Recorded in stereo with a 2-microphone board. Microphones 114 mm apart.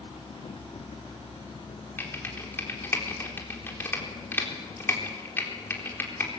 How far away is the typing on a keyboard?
About 3.5 m.